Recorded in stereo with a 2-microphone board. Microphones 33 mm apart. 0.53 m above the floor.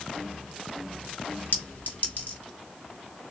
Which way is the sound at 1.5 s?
55° left (ahead or behind).